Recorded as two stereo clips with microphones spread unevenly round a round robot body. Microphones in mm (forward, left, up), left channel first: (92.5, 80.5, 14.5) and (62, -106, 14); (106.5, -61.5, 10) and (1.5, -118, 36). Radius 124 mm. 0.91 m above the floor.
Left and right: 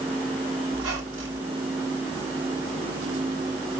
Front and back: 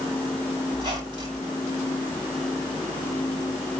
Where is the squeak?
105° right, 4.5 m.